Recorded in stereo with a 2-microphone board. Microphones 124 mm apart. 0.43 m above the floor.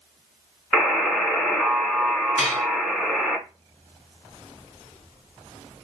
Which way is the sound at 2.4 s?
60° left (ahead or behind).